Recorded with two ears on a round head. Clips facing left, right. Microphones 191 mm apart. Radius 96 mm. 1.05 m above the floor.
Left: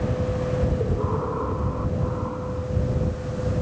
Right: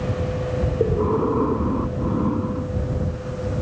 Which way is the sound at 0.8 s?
50° right (ahead or behind).